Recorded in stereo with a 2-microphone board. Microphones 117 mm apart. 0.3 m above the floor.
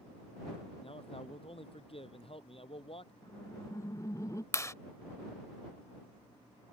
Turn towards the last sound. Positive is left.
turn(degrees=25)  # may be behind; listen again after turning